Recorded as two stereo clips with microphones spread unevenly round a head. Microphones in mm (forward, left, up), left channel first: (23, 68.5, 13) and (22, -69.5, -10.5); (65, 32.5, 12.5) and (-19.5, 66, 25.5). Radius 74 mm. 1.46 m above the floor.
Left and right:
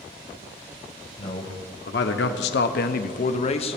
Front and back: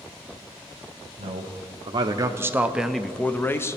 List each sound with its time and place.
1.2 s a man speaking: 135° left, 0.9 m; by 3.8 s 35° left, 0.8 m